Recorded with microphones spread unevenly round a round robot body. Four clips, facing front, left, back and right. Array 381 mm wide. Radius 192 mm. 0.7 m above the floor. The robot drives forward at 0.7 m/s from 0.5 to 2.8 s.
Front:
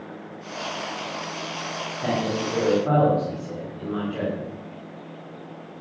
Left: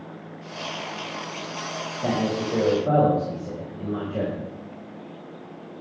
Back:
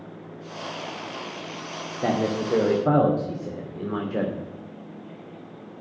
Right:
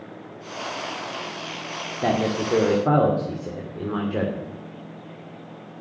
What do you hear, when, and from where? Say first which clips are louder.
2.0 s a man speaking: right 2 dB, back 2 dB; 110° right, 2.5 m; by 4.5 s 120° right, 2.5 m